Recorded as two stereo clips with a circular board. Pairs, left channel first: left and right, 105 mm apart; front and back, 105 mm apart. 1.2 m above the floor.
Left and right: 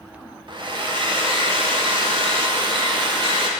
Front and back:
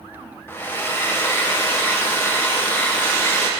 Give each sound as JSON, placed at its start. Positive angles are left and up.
{"t": 0.5, "sound": "a hair dryer", "azimuth_deg": -65, "distance_m": 0.6}